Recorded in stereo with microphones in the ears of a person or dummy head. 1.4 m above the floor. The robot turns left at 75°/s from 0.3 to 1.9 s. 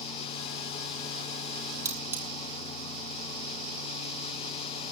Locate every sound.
1.9 s cutlery clinking: 15° right (ahead or behind), 2.5 m